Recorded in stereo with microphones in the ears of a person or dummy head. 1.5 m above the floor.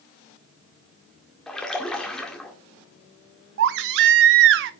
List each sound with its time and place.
1.5 s a splash: 5° left (ahead or behind), 1.9 m
3.6 s a baby crying: 65° right (ahead or behind), 0.6 m